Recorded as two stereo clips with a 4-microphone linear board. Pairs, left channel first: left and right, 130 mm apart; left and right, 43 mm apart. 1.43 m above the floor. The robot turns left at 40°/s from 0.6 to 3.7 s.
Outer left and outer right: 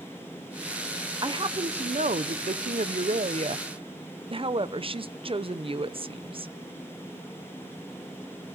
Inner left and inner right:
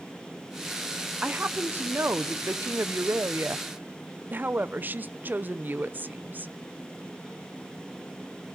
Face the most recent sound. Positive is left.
turn(degrees=-135)